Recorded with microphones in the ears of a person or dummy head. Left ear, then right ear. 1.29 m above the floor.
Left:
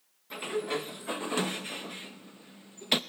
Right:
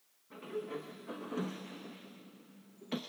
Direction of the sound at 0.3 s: 35° left (ahead or behind).